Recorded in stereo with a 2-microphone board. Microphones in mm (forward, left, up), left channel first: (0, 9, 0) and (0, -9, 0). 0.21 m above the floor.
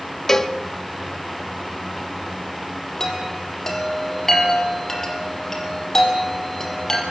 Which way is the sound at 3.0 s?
30° left (ahead or behind).